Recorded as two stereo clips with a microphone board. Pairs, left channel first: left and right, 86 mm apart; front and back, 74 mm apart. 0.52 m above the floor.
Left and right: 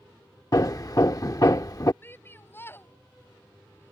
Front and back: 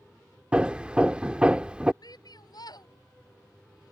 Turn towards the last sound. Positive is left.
turn(degrees=25)